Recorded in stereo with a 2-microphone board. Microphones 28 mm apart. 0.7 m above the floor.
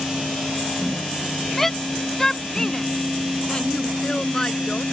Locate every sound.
1.6 s a shout: 10° left (ahead or behind); by 4.8 s 30° left (ahead or behind)